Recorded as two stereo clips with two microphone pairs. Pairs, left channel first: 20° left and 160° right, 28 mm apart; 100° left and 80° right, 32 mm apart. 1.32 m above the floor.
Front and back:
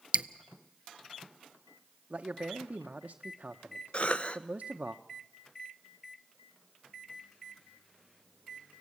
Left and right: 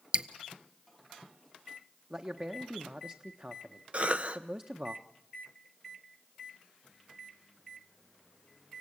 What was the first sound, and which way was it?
Dripping, 120° right.